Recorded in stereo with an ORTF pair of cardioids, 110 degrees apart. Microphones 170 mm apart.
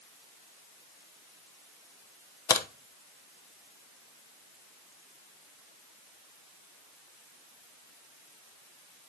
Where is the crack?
20° left, 1.0 m.